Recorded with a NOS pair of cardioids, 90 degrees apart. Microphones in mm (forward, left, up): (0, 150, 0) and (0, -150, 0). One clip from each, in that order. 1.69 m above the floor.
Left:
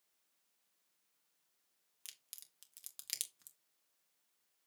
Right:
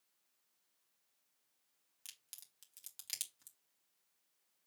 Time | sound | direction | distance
2.0 | a crack | 15° left | 2 m